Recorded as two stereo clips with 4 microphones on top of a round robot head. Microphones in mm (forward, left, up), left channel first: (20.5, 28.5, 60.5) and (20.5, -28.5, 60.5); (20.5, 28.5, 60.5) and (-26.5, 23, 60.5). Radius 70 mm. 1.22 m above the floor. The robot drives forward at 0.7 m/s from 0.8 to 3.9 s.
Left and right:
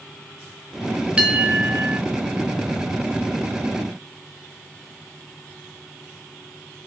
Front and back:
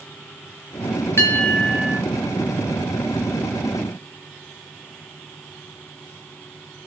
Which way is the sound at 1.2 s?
30° right.